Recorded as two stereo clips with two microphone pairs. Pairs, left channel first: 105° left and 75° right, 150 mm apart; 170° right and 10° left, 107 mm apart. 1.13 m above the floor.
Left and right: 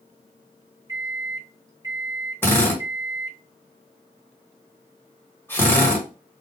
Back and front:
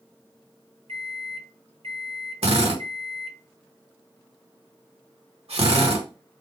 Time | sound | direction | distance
0.9 | a microwave | 5° right | 0.6 m
2.4 | a drill | 30° left | 1.4 m